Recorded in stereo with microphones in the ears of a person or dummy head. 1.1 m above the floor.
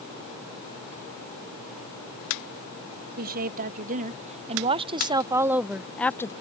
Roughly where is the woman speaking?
Right.